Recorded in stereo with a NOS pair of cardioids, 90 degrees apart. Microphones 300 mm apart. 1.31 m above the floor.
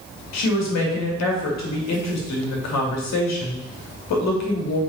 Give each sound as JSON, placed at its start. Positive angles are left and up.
{"t": 0.3, "sound": "a woman speaking", "azimuth_deg": 70, "distance_m": 3.0}